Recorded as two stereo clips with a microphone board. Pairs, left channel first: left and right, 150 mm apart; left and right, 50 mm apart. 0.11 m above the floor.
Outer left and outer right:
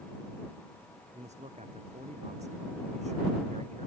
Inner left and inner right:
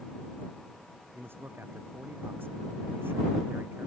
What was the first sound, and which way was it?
A man speaking, 55° right (ahead or behind).